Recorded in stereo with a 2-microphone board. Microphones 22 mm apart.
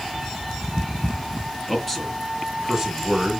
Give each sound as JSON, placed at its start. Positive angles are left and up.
{"t": 1.7, "sound": "a man speaking", "side_deg": 0, "distance_m": 2.5}